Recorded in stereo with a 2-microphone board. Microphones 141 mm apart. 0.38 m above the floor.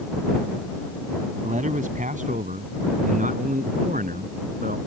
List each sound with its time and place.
1.4 s a man speaking: 65° right (ahead or behind); by 4.8 s 75° right (ahead or behind)